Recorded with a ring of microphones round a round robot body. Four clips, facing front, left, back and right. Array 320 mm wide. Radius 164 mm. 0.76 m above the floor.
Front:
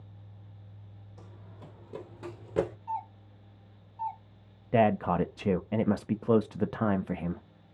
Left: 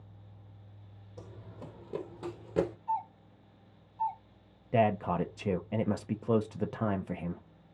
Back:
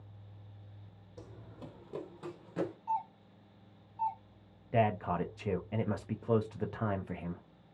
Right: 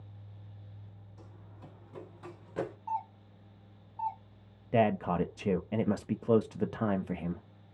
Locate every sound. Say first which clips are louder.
1.2 s running footsteps: left 8 dB, back 3 dB; 125° left, 1.4 m; by 2.8 s 30° left, 1.3 m
2.9 s a doorbell: left 2 dB, back 1 dB; 110° right, 2.0 m
4.7 s a man speaking: even, front 6 dB; 10° right, 0.6 m